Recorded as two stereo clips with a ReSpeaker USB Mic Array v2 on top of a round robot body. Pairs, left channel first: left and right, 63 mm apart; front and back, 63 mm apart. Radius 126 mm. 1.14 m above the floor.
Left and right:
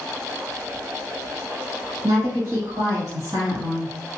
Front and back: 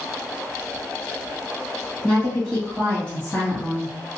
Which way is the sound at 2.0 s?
80° right.